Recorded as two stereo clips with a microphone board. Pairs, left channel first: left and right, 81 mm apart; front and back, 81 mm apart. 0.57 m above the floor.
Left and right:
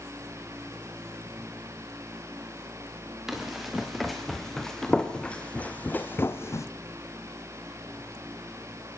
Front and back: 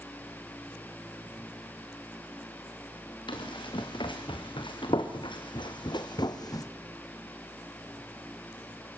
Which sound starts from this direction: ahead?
Running footsteps, at 3.3 s.